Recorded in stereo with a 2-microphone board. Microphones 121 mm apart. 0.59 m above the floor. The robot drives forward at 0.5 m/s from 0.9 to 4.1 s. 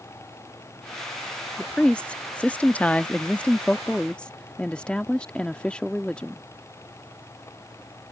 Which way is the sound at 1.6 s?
10° left (ahead or behind).